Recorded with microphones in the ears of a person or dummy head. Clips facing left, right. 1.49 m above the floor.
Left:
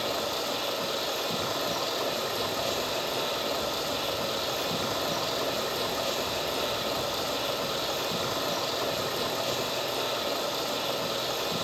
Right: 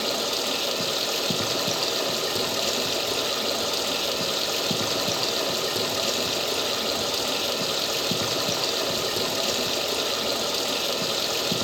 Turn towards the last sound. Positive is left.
turn(degrees=-45)  # may be behind; listen again after turning